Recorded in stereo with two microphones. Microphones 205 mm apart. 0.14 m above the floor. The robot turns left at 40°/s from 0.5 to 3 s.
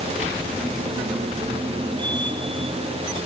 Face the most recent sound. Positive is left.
No sound to turn to.